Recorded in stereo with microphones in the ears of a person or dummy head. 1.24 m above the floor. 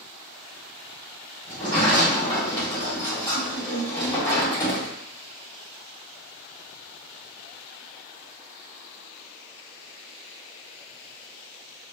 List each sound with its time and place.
1.5 s a sliding door: 20° left (ahead or behind), 1.6 m